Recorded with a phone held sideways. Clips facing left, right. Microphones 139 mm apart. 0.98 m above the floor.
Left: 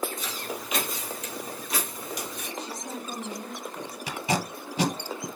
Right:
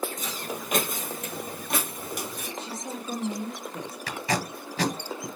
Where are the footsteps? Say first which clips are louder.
Right 1 dB; 45° right (ahead or behind), 1.7 m; by 2.5 s 50° right (ahead or behind), 1.7 m.